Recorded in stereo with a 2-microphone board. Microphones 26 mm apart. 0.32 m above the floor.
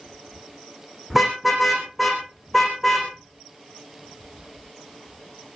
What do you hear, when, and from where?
1.1 s a car horn: centre (ahead or behind), 8 m; by 5.6 s 15° left (ahead or behind), 10 m